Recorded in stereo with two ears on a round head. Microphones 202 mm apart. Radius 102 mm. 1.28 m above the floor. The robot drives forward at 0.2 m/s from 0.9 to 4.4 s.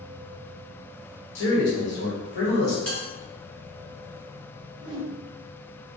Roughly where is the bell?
Centre.